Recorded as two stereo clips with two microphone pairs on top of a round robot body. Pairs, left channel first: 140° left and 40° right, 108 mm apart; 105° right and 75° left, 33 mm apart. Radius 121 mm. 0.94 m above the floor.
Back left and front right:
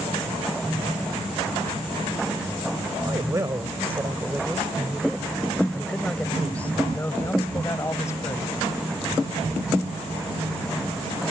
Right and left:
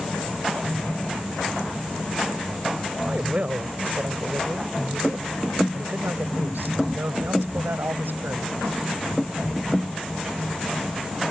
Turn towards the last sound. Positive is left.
turn(degrees=80)